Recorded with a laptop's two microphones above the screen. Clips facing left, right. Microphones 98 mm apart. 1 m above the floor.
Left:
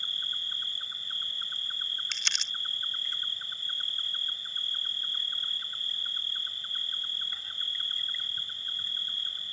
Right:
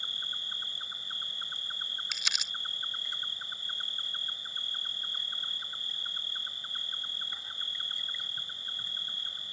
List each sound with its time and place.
0.0 s an insect: 20° right (ahead or behind)
2.1 s crumpling: 5° right (ahead or behind)